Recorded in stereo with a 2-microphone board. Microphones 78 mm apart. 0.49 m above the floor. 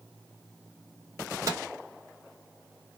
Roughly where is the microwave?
Right.